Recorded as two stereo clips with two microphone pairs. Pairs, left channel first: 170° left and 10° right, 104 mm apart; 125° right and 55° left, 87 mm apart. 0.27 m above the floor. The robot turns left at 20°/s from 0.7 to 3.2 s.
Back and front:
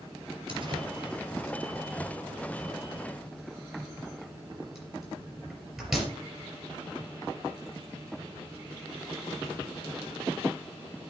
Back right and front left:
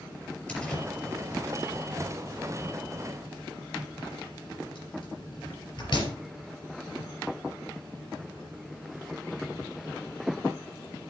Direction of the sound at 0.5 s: 50° right.